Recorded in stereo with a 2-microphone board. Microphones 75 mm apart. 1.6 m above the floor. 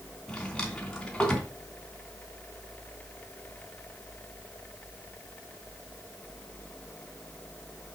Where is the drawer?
10° left (ahead or behind), 3 m.